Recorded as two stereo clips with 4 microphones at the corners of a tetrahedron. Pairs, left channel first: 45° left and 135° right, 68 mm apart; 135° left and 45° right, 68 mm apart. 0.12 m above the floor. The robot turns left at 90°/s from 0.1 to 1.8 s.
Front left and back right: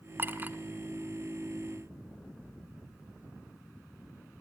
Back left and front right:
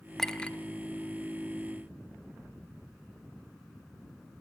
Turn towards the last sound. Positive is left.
turn(degrees=75)